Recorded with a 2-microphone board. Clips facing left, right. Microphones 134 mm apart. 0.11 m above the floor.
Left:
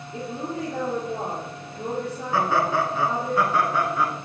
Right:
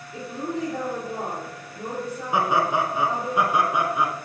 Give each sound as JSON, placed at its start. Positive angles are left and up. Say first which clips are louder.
{"t": 0.1, "sound": "a woman speaking", "louder": "right 1 dB", "side_deg": 5, "distance_m": 3.0}
{"t": 2.3, "sound": "laughter", "louder": "even", "side_deg": -15, "distance_m": 1.2}